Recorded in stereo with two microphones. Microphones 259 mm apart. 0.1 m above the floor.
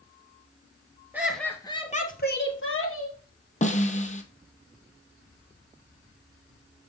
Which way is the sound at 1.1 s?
5° right (ahead or behind).